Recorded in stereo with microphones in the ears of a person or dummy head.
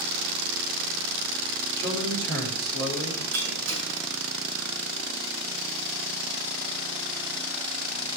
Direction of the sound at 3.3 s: 80° right.